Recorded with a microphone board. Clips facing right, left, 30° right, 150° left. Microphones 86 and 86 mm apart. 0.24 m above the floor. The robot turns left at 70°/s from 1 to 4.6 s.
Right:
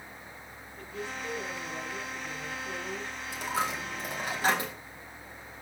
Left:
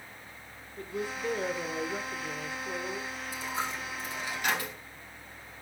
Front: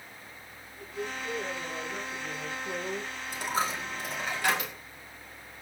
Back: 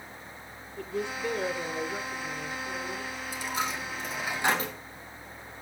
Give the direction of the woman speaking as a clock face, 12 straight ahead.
7 o'clock.